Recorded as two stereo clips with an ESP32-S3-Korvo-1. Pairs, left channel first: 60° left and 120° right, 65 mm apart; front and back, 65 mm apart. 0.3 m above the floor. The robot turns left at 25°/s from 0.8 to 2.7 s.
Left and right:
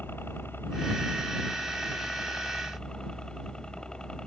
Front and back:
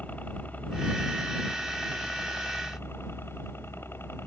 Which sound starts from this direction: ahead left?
A helicopter, at 0.0 s.